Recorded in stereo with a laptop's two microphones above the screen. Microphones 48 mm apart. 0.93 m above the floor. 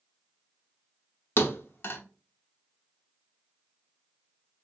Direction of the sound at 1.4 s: 45° left (ahead or behind).